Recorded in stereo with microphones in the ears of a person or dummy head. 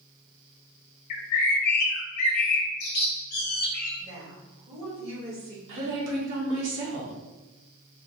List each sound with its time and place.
1.1 s a bird: 50° left (ahead or behind), 0.5 m
4.0 s a woman speaking: 60° right (ahead or behind), 1.7 m
5.7 s a woman speaking: 75° right (ahead or behind), 1.3 m